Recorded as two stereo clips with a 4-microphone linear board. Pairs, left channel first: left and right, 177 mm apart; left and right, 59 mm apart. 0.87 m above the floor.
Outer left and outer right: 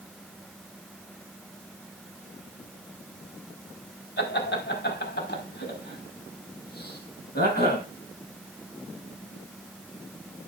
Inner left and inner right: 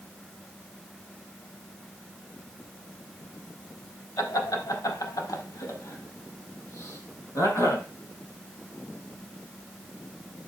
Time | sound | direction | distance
4.2 | laughter | 85° left | 3.5 m